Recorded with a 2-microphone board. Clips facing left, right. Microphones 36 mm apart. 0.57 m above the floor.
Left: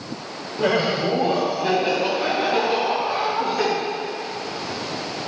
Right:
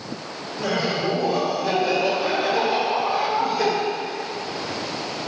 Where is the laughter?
35° left (ahead or behind), 1.4 m; by 3.7 s 40° left (ahead or behind), 6.5 m.